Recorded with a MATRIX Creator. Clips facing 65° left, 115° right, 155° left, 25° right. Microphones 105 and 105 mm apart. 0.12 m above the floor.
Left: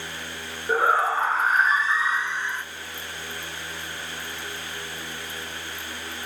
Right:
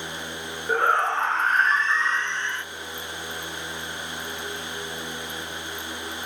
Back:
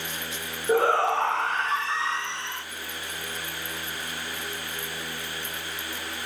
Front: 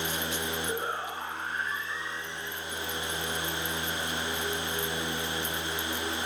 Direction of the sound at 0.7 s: 155° left.